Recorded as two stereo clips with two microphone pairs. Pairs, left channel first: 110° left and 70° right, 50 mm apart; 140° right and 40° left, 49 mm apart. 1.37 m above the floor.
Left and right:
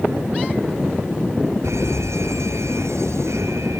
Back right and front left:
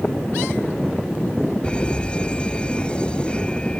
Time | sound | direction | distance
1.6 | an alarm | 70° right | ?